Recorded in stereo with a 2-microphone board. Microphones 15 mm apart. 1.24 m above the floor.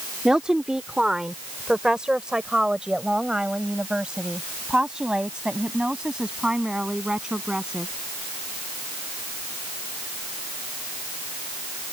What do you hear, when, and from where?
0.2 s a woman speaking: 70° right (ahead or behind); by 7.9 s 90° right